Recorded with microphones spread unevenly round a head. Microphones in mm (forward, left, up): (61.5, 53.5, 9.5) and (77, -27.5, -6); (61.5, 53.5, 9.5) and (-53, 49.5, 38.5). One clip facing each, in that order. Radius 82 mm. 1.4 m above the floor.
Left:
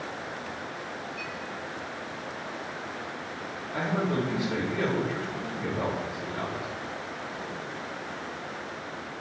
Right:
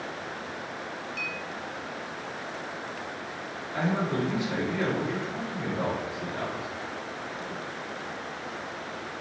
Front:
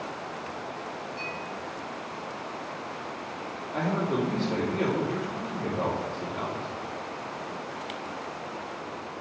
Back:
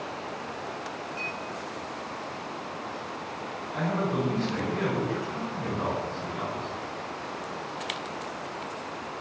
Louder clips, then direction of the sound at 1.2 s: Right 1 dB, even; 100° right.